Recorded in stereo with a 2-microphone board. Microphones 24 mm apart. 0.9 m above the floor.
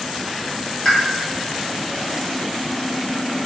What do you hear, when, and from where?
0.8 s a pop: 25° left (ahead or behind), 1.1 m